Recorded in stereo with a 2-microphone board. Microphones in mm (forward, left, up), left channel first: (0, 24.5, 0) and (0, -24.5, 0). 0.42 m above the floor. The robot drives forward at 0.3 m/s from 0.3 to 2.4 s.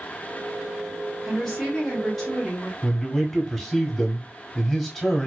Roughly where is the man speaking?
Centre.